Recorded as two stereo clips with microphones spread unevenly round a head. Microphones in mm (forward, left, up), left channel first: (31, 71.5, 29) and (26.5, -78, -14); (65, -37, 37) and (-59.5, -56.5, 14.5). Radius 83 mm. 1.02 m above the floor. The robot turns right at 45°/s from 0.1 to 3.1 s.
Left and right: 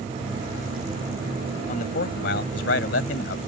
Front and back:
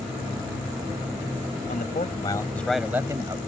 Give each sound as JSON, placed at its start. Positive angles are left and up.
{"t": 1.7, "sound": "a man speaking", "azimuth_deg": 50}